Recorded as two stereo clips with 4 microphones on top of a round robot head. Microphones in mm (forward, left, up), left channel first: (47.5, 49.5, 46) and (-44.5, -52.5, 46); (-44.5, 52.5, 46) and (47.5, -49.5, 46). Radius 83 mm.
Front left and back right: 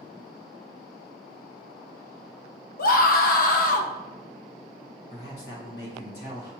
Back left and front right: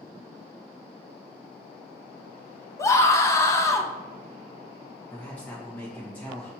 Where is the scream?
65° left, 0.7 m.